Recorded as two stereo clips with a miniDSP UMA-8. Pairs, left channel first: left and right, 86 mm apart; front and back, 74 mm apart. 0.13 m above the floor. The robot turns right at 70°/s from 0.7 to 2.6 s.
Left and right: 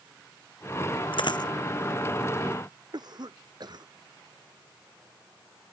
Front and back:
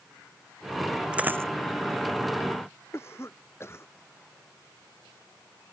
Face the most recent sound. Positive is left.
turn(degrees=-55)